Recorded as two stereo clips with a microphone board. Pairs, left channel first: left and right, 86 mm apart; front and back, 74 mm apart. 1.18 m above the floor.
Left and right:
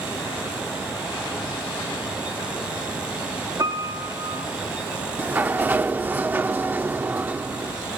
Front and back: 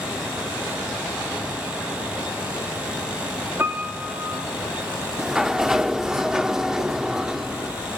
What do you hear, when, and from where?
3.6 s a piano: 125° right, 2.5 m
5.2 s a sliding door: 110° right, 0.8 m